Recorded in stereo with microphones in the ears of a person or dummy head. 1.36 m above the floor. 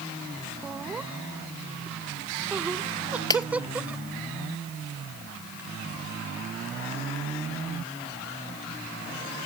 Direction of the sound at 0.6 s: 10° right (ahead or behind).